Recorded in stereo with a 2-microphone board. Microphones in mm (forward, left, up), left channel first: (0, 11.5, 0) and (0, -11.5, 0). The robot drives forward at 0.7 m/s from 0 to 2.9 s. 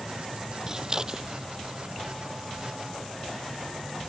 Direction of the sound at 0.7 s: 25° right (ahead or behind).